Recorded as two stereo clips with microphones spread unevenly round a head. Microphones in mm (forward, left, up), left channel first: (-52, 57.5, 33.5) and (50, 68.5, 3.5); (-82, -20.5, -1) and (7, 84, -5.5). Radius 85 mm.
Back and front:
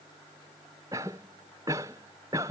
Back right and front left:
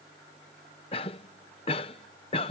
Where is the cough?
70° right.